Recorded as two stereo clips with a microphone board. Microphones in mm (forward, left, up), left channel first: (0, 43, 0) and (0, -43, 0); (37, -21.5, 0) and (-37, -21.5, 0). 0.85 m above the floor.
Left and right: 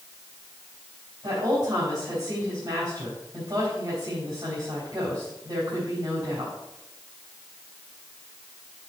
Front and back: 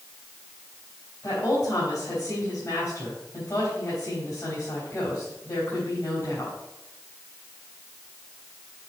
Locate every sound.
1.2 s a woman speaking: 50° right, 3.5 m